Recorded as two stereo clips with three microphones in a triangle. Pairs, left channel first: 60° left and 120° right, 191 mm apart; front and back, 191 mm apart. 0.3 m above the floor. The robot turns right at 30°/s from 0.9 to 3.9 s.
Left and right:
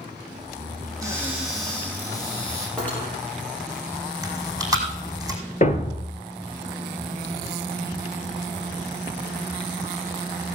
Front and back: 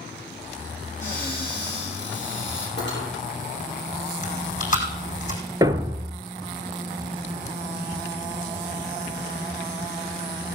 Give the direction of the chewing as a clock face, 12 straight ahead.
2 o'clock.